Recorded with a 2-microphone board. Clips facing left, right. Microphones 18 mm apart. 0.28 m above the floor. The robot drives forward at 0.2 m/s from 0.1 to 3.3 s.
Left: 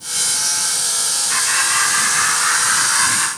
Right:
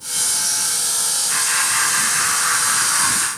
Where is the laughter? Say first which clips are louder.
Left 3 dB; 5° left (ahead or behind), 1.3 m.